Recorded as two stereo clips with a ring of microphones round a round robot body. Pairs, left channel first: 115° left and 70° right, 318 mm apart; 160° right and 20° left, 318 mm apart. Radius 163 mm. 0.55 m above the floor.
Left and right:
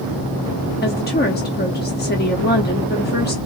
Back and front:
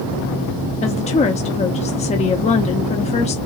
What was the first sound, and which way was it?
A woman speaking, 145° left.